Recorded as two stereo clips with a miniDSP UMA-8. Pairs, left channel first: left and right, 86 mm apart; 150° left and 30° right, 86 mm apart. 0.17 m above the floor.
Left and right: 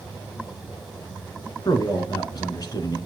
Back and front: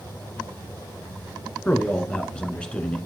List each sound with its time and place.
1.6 s a man speaking: 75° left, 1.6 m